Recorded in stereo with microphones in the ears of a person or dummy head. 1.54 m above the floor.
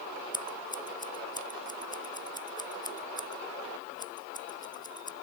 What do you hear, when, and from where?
0.3 s scissors: 20° left (ahead or behind)